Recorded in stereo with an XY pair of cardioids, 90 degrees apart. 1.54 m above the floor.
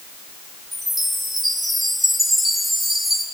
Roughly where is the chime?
Ahead right.